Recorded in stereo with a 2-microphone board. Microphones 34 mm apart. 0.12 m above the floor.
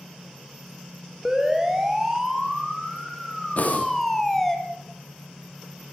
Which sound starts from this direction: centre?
A siren, at 1.2 s.